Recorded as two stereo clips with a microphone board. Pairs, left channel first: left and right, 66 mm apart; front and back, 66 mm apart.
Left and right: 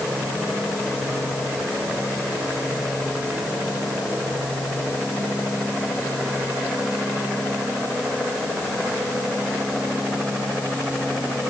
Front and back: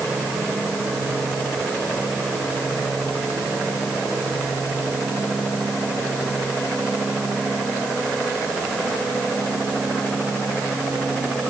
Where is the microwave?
I don't hear a microwave.